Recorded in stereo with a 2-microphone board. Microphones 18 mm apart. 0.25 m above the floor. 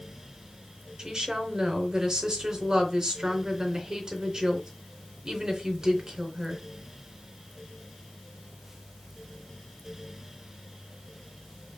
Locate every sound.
1.0 s a woman speaking: 45° right (ahead or behind), 3.5 m